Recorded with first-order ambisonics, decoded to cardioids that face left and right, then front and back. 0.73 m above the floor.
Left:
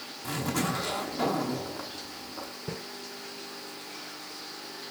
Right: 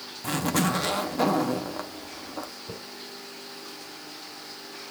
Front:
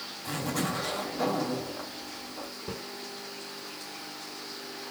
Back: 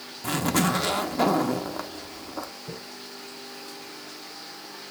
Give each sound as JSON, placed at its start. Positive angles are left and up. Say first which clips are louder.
{"t": 0.2, "sound": "a zipper", "louder": "right 5 dB, back 7 dB", "azimuth_deg": -145, "distance_m": 0.8}
{"t": 2.7, "sound": "a snare drum", "louder": "left 1 dB, front 1 dB", "azimuth_deg": 65, "distance_m": 4.0}